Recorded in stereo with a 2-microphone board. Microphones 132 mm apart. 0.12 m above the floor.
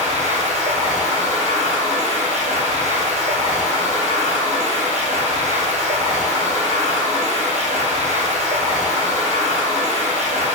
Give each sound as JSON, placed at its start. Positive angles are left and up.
{"t": 0.0, "sound": "running water", "side_deg": -60, "distance_m": 1.3}